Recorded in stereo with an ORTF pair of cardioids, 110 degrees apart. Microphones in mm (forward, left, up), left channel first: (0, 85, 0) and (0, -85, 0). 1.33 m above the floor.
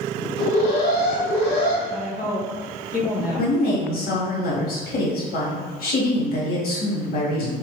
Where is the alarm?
65° left, 2 m.